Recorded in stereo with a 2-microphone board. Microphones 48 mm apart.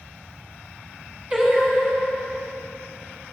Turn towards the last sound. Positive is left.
turn(degrees=-25)  # may be behind; listen again after turning